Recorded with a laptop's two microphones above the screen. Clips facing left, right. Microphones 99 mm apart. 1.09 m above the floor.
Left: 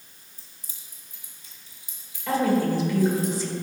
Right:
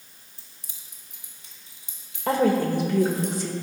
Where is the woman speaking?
60° right (ahead or behind), 1.4 m.